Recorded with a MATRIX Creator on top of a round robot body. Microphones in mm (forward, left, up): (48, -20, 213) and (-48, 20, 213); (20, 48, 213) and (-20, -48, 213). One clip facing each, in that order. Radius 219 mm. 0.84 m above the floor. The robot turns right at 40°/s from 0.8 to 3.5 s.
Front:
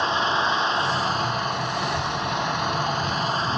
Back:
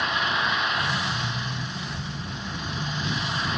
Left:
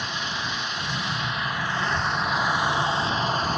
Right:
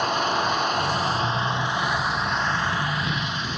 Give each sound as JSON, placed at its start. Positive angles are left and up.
{"t": 0.0, "sound": "an engine running", "azimuth_deg": -80}
{"t": 1.8, "sound": "a child speaking", "azimuth_deg": 15}